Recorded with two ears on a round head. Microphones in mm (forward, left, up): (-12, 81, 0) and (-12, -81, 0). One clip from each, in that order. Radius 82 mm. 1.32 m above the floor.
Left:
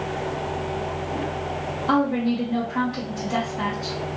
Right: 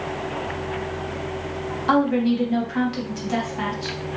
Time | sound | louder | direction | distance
1.9 | a woman speaking | right 3 dB | 45° right (ahead or behind) | 1.2 m